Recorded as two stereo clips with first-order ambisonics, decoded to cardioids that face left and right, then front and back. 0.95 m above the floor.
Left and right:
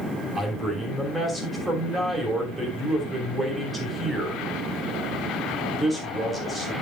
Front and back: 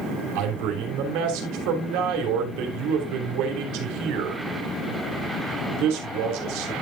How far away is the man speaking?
About 3 m.